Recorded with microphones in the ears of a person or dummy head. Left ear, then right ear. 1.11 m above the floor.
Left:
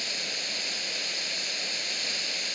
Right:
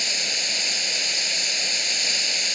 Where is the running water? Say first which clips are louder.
Right 7 dB; 20° right (ahead or behind).